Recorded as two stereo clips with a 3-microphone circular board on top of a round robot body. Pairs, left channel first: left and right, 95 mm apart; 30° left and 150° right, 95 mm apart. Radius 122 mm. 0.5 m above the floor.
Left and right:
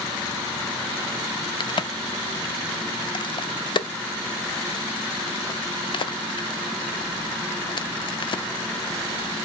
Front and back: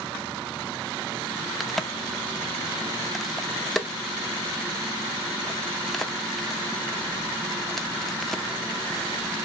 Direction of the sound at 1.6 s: 120° left.